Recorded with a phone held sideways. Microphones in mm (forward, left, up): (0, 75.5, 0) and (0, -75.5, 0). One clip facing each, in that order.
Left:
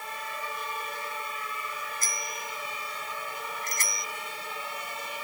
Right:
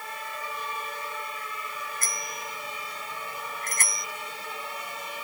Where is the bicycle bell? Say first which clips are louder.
Right 1 dB; 55° right (ahead or behind); by 4.1 s 50° right (ahead or behind).